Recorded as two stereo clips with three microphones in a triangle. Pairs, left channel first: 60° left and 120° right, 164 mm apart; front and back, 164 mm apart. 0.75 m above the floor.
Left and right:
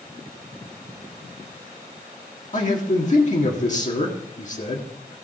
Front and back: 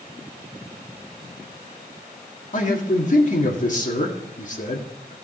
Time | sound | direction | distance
2.5 | a man speaking | 30° left | 1.8 m